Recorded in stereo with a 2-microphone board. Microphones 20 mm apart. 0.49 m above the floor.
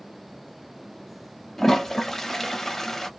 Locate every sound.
1.6 s a toilet flushing: 20° left (ahead or behind), 0.6 m